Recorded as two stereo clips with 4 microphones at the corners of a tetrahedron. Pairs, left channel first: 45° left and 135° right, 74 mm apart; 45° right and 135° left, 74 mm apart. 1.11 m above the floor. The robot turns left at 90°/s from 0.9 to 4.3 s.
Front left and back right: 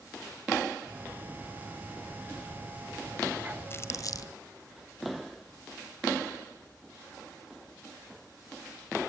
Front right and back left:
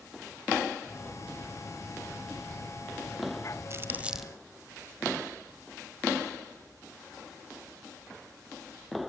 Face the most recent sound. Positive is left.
turn(degrees=40)